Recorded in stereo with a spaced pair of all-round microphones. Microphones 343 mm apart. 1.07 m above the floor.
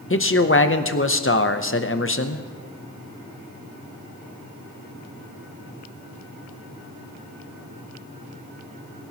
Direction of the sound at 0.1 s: 35° left (ahead or behind).